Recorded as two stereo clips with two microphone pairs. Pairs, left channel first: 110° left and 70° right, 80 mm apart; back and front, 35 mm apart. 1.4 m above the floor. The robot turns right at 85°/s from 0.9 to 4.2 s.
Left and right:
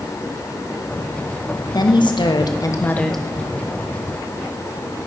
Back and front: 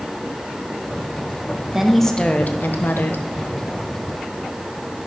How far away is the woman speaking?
About 1.0 m.